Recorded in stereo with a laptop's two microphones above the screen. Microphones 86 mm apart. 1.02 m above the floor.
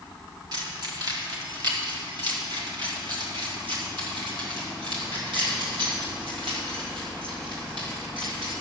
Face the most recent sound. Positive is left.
turn(degrees=-75)  # may be behind; listen again after turning